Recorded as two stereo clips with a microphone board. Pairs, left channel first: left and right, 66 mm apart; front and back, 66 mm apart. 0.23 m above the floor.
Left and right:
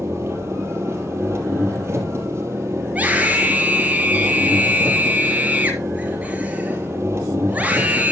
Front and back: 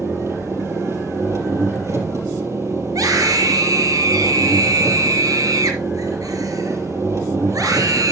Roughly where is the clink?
I don't hear a clink.